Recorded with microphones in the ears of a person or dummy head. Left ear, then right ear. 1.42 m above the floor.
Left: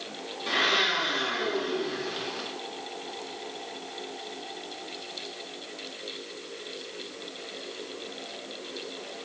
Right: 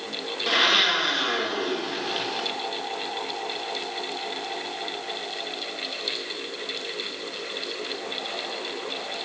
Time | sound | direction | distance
0.5 | a blender | 20° right (ahead or behind) | 1.6 m